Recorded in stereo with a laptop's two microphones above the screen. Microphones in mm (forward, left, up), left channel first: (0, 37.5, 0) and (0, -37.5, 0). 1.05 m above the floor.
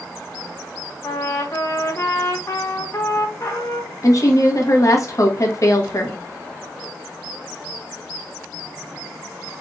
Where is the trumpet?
40° left (ahead or behind), 0.8 m.